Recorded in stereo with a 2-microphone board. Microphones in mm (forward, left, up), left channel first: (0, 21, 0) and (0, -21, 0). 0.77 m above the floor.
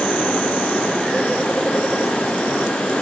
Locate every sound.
Only background noise.